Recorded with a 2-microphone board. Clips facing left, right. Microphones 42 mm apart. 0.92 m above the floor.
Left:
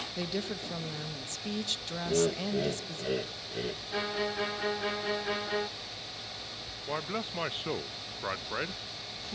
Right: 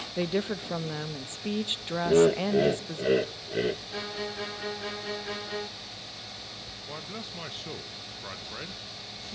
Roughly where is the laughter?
Right.